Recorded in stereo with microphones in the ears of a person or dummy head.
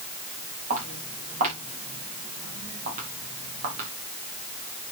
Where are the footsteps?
40° right (ahead or behind), 6 m; by 3.9 s 45° right (ahead or behind), 4 m.